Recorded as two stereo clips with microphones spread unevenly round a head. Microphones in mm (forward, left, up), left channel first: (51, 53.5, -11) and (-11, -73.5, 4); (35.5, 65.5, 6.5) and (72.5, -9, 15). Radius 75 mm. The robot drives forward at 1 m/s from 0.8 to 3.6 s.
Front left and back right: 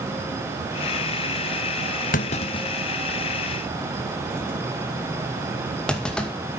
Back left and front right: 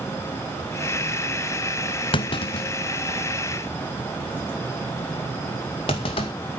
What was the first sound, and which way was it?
A clunk, 105° left.